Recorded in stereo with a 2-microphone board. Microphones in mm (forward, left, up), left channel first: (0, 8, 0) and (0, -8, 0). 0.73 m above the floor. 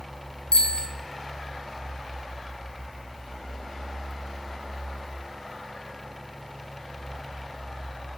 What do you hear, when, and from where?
0.5 s a bicycle bell: 85° left, 4.5 m